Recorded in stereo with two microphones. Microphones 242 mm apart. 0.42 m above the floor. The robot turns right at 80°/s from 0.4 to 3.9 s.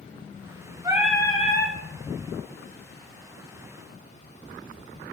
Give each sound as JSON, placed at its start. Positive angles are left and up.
{"t": 0.8, "sound": "singing", "azimuth_deg": -20, "distance_m": 1.9}